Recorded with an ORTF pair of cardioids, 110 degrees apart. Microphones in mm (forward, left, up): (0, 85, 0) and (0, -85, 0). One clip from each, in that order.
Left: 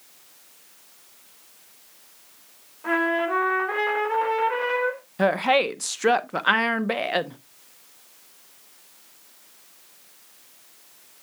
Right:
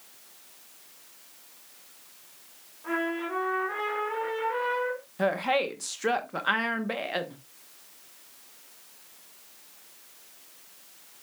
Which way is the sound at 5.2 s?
30° left.